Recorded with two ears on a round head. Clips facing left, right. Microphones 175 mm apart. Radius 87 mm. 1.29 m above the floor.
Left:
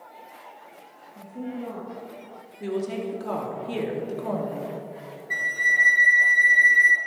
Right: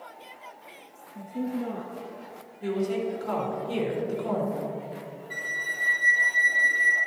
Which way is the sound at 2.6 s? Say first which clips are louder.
Right 1 dB; 65° left (ahead or behind).